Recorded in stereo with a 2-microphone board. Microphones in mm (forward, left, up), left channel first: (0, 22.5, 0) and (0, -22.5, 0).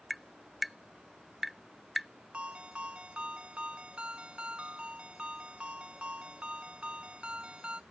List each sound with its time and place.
0.1 s tapping: centre (ahead or behind)
2.3 s a ringtone: 25° right (ahead or behind)